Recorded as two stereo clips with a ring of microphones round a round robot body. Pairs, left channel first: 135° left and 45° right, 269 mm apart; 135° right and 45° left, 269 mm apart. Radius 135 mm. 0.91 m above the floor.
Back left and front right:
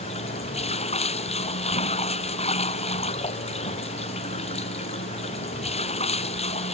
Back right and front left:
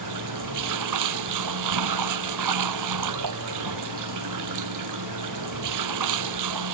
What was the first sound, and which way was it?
Running water, 65° left.